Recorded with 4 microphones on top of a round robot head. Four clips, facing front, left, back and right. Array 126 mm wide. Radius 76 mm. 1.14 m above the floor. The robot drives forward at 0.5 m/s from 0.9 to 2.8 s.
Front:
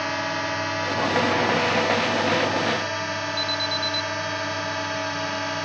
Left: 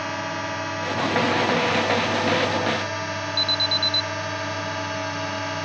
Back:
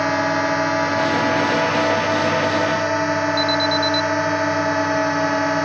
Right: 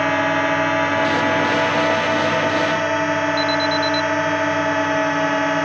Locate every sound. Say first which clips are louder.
0.0 s a drone: right 10 dB, back 8 dB; 130° right
3.4 s an alarm: right 10 dB, back 9 dB; 170° left